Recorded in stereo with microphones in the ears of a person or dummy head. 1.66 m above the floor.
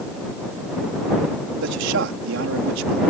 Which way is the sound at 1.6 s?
70° right (ahead or behind).